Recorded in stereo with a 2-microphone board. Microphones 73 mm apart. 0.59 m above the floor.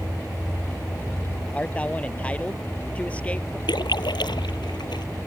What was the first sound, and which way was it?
A man speaking, 15° left (ahead or behind).